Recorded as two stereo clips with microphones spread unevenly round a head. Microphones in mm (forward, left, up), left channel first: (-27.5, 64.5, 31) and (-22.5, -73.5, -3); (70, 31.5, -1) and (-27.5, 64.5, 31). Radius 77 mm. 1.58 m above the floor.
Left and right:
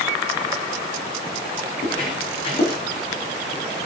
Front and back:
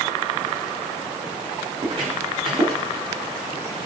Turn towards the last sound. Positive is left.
turn(degrees=130)